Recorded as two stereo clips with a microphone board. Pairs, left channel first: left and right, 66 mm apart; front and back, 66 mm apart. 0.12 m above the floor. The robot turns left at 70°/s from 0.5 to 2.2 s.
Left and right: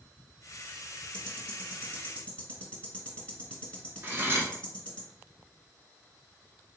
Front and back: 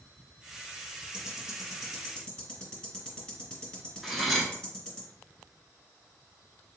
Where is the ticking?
135° left, 1.4 m; by 5.0 s 60° left, 1.4 m.